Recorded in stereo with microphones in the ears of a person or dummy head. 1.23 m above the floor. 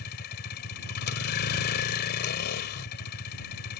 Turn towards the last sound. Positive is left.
turn(degrees=55)  # may be behind; listen again after turning